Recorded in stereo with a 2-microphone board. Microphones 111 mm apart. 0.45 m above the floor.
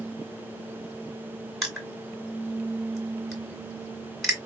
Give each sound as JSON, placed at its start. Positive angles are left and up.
{"t": 1.6, "sound": "crushing", "side_deg": 0, "distance_m": 2.0}